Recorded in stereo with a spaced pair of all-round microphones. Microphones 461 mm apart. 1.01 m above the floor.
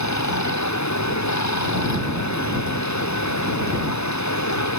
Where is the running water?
35° left (ahead or behind).